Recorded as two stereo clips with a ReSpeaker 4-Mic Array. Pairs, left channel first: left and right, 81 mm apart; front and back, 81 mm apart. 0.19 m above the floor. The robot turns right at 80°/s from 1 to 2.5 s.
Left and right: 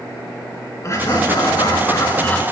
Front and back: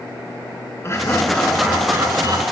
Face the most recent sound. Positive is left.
turn(degrees=170)